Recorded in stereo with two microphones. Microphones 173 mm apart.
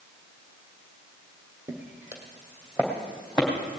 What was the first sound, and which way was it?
Footsteps, 15° right (ahead or behind).